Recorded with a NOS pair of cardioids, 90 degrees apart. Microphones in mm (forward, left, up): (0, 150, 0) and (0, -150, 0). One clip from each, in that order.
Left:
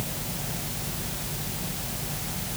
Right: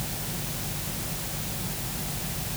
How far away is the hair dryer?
I don't hear a hair dryer.